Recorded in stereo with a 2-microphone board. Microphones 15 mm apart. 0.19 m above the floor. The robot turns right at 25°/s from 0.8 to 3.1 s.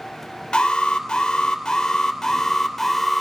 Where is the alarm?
115° left, 3 m; by 3.2 s 175° left, 3 m.